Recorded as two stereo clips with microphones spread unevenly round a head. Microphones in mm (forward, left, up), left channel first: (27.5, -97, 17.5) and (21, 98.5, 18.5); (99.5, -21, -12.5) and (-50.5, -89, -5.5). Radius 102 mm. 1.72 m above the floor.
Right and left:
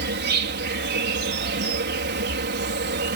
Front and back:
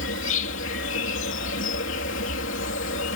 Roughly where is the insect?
Ahead left.